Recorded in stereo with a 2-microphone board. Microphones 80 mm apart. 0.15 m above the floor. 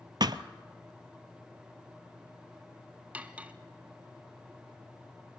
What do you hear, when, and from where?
0.2 s a thud: 60° right (ahead or behind), 0.6 m
3.1 s cutlery clinking: 20° right (ahead or behind), 0.8 m